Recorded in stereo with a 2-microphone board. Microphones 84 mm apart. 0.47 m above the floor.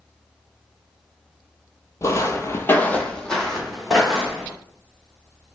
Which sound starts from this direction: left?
Footsteps, at 2.0 s.